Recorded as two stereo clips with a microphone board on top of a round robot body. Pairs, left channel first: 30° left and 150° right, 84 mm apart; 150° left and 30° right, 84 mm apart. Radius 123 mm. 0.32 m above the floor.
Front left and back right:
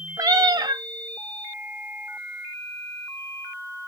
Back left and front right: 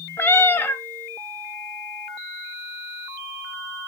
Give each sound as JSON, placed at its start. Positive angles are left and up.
{"t": 0.2, "sound": "a cat meowing", "azimuth_deg": -155, "distance_m": 0.8}